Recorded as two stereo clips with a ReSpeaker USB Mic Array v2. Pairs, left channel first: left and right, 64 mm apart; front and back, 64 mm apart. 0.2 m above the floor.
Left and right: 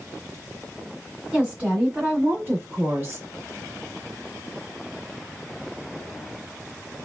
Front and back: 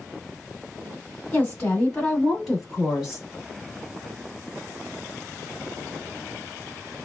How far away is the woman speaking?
About 1.6 m.